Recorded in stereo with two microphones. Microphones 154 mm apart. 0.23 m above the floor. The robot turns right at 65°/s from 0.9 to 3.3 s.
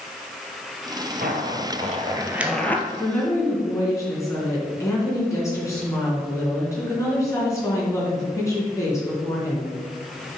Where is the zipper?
85° right, 0.9 m; by 2.8 s 20° left (ahead or behind), 0.9 m.